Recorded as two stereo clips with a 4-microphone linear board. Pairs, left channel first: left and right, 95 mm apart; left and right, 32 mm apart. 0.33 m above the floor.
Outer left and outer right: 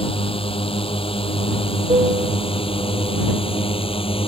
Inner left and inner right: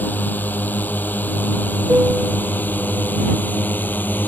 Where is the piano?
85° right.